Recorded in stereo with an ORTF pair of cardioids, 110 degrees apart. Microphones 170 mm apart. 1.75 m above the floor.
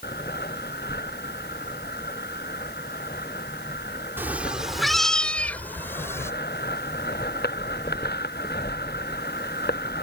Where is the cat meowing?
15° right; by 6.3 s 15° left.